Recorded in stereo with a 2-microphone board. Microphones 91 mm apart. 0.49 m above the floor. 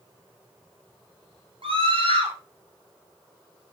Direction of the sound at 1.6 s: 70° right (ahead or behind).